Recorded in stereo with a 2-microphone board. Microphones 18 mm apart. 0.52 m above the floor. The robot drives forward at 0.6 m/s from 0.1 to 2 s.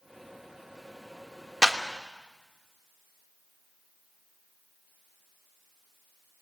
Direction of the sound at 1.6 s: 40° right (ahead or behind).